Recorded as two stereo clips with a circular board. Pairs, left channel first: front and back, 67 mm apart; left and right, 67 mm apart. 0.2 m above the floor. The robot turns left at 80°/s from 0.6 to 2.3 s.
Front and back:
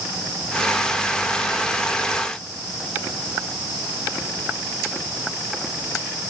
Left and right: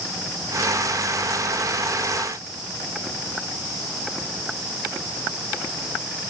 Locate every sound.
Only background noise.